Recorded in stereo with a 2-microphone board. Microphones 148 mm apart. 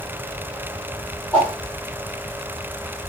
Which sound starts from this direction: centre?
A whoosh, at 1.3 s.